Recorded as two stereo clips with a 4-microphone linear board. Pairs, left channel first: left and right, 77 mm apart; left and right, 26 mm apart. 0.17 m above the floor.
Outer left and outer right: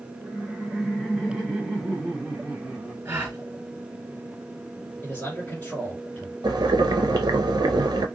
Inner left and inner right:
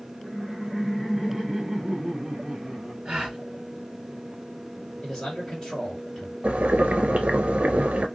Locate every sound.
0.2 s laughter: 5° left (ahead or behind), 1.5 m; by 3.0 s 10° right (ahead or behind), 1.9 m
3.0 s a gasp: 30° right (ahead or behind), 1.8 m
5.0 s a man speaking: 25° left (ahead or behind), 2 m
6.4 s boiling: 75° right (ahead or behind), 0.6 m